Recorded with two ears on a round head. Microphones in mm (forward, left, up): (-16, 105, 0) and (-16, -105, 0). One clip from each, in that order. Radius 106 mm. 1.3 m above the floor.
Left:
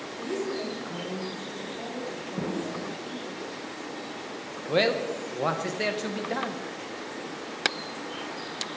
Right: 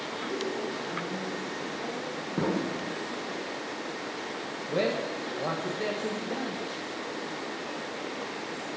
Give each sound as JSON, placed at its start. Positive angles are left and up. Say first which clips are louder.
{"t": 0.2, "sound": "a woman speaking", "louder": "left 3 dB", "side_deg": 45, "distance_m": 4.0}
{"t": 2.4, "sound": "an explosion", "louder": "right 3 dB", "side_deg": -60, "distance_m": 0.5}
{"t": 4.7, "sound": "a man speaking", "louder": "left 5 dB", "side_deg": 55, "distance_m": 1.2}